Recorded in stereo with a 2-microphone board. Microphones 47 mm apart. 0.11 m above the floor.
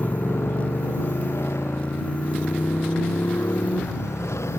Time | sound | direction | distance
0.0 | a motorcycle | 60° left (ahead or behind) | ?